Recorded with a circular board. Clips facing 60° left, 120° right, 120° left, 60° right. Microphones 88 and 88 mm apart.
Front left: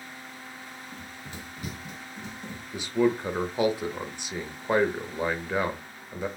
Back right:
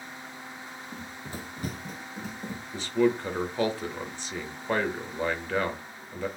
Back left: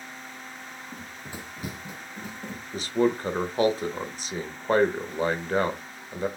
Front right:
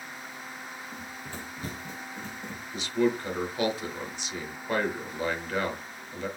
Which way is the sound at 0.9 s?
165° right.